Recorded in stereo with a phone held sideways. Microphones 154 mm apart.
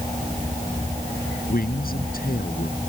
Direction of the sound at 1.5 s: 70° left (ahead or behind).